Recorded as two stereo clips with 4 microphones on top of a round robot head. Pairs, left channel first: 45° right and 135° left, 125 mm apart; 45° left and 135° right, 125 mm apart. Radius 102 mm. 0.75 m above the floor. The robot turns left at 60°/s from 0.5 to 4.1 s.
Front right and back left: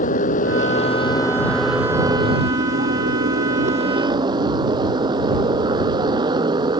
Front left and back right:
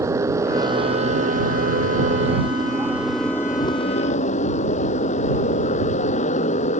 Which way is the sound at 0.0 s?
65° right.